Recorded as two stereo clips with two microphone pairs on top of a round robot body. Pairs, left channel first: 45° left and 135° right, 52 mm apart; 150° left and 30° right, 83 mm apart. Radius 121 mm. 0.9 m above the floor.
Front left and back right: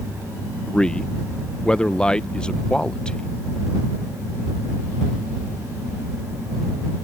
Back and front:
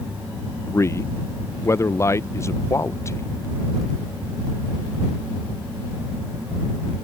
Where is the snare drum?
No snare drum in this recording.